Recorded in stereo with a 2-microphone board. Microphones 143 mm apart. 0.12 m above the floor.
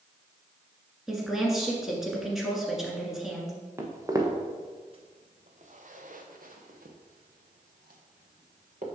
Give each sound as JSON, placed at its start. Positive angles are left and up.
{"t": 1.1, "sound": "a woman speaking", "side_deg": -5, "distance_m": 1.6}
{"t": 3.8, "sound": "footsteps", "side_deg": -20, "distance_m": 1.5}